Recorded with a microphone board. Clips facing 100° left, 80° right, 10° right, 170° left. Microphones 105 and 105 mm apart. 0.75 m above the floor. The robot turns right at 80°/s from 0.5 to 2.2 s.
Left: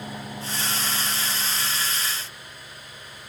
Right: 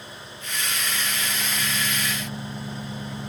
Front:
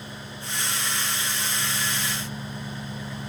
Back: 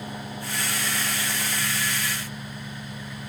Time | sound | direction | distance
0.0 | an engine running | 130° left | ?